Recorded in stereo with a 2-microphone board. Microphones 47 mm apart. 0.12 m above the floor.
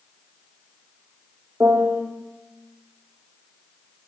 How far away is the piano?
About 2.5 m.